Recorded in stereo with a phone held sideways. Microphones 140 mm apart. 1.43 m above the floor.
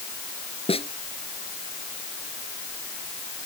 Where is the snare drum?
40° left (ahead or behind).